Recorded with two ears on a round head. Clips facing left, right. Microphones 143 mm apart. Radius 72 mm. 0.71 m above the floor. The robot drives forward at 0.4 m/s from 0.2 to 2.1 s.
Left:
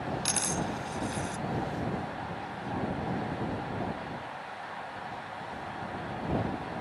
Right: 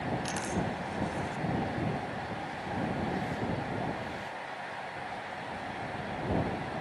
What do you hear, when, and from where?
0.2 s a dropped coin: 65° left (ahead or behind); by 1.4 s 75° left (ahead or behind)